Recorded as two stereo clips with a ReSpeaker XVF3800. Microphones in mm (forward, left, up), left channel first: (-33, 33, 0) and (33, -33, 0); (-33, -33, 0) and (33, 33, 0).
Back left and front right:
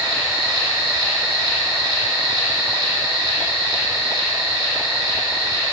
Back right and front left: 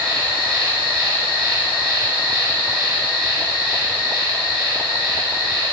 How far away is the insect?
About 1.2 m.